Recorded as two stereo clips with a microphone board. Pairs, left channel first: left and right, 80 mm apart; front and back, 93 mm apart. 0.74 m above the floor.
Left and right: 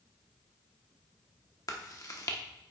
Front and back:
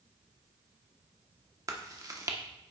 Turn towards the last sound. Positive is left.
turn(degrees=130)